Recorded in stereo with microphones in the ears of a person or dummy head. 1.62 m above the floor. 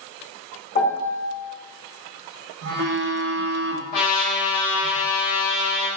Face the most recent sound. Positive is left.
turn(degrees=40)  # may be behind; listen again after turning